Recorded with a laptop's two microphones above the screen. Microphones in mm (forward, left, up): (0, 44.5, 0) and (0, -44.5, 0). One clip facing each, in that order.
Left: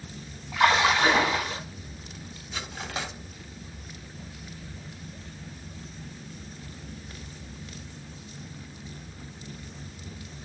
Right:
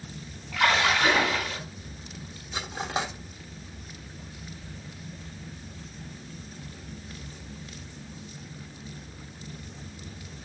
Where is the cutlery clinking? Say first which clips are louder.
Right 5 dB; 25° right (ahead or behind), 0.7 m.